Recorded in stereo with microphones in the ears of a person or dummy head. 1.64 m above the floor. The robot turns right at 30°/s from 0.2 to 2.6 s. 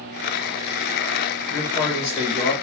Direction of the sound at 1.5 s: 10° left.